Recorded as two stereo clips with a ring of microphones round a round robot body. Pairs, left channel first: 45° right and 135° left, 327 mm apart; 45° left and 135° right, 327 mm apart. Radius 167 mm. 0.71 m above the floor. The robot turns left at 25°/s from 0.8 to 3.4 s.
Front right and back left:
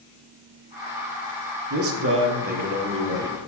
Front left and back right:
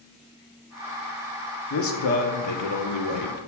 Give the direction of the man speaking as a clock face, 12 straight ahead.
9 o'clock.